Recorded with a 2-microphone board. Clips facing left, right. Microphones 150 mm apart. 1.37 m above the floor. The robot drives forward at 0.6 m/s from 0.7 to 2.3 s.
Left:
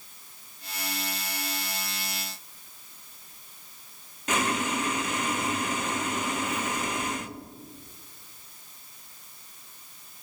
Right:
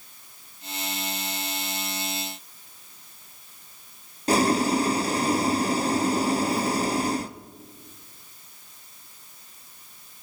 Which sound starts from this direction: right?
Boiling, at 4.3 s.